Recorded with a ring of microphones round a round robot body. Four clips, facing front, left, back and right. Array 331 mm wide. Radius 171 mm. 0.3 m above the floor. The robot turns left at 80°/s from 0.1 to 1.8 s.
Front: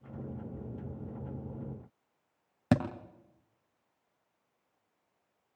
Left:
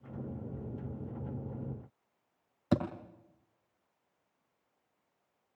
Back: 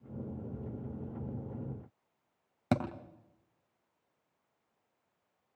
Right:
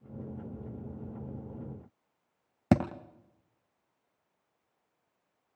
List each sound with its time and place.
2.7 s a thud: 75° right, 2.5 m